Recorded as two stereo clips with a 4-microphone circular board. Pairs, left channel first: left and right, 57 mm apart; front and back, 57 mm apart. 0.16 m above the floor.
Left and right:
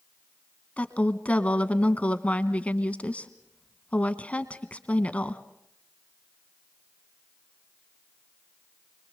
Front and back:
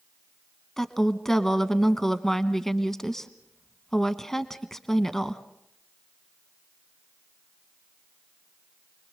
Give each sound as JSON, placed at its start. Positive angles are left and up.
{"t": 0.8, "sound": "a woman speaking", "azimuth_deg": 75, "distance_m": 1.1}